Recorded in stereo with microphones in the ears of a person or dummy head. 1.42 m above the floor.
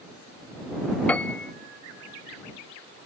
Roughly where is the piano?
Centre.